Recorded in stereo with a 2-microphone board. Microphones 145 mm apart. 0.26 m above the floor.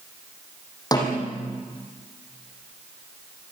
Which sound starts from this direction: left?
A snare drum, at 0.9 s.